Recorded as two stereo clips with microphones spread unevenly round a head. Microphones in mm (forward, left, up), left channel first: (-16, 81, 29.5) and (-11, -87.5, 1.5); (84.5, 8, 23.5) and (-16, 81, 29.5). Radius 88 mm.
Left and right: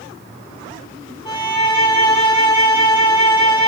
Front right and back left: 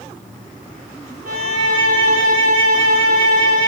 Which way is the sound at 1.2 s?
155° left.